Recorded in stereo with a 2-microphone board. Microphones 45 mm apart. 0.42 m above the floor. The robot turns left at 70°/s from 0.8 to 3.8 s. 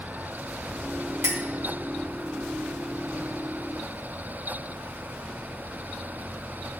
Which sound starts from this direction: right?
A clink, at 1.2 s.